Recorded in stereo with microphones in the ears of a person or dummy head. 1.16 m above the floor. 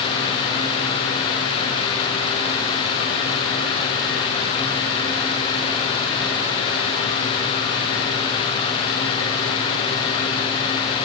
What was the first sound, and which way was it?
Only background noise.